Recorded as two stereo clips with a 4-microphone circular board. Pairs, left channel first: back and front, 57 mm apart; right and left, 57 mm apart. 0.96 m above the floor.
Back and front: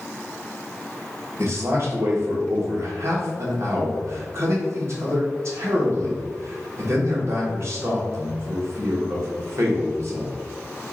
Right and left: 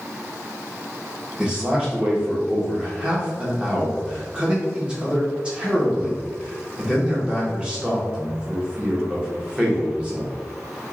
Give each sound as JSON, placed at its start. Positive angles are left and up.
{"t": 1.4, "sound": "a man speaking", "azimuth_deg": 20, "distance_m": 1.5}